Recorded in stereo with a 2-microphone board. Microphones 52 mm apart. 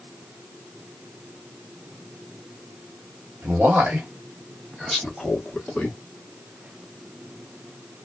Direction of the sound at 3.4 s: 40° right (ahead or behind).